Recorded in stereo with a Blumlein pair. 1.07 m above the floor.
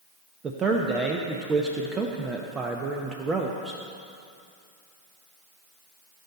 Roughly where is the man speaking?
Ahead.